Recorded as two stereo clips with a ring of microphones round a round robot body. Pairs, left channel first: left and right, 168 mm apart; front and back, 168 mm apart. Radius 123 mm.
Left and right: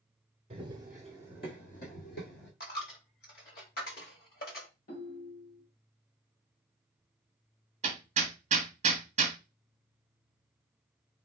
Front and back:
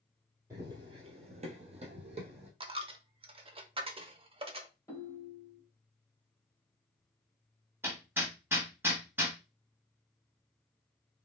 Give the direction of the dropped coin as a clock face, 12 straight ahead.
8 o'clock.